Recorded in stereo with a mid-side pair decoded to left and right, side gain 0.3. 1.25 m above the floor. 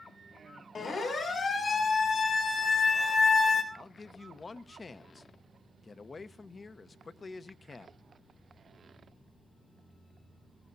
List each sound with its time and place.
0.8 s a siren: 65° left, 6.5 m
3.7 s a man speaking: 50° left, 1.0 m